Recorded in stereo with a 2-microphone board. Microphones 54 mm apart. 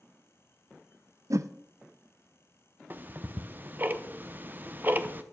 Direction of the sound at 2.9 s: 35° right (ahead or behind).